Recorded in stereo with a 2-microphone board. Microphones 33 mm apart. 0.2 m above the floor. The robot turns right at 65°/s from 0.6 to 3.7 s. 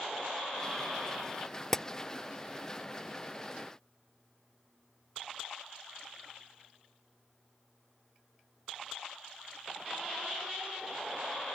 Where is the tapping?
10° left (ahead or behind); by 1.9 s 20° left (ahead or behind).